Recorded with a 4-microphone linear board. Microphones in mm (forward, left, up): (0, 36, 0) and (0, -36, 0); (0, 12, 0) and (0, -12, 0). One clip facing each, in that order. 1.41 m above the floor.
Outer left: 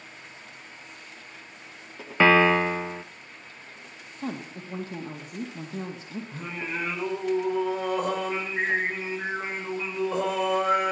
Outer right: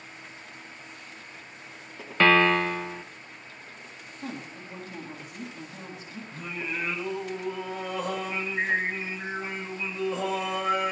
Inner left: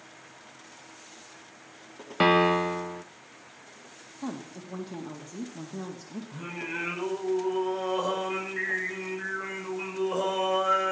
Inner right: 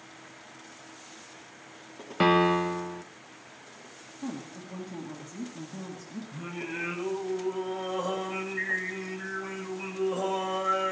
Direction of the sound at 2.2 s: 10° left (ahead or behind).